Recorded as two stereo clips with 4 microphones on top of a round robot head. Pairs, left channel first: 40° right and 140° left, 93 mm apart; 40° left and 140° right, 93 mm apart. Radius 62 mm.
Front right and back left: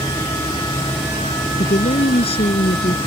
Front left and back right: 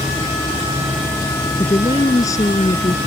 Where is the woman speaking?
15° right.